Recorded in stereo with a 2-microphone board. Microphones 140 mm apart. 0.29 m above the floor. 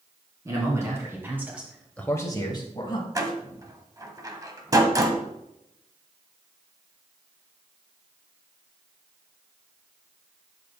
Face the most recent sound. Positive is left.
turn(degrees=-25)  # may be behind; listen again after turning